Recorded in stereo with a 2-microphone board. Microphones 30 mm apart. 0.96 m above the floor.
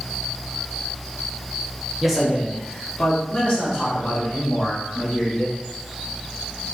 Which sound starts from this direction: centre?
A man speaking, at 2.0 s.